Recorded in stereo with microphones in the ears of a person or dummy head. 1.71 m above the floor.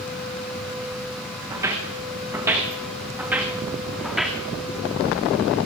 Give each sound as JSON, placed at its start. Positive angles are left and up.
{"t": 1.5, "sound": "footsteps", "side_deg": -25, "distance_m": 8.0}